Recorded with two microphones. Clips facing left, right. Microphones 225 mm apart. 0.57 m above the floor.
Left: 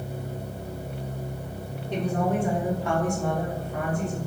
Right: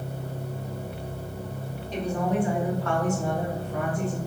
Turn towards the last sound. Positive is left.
turn(degrees=-50)  # may be behind; listen again after turning